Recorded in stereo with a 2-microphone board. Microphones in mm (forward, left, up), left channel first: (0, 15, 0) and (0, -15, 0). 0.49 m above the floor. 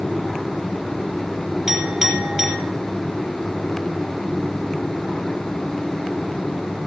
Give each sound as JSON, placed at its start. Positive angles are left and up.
{"t": 1.7, "sound": "a clink", "side_deg": -15, "distance_m": 4.5}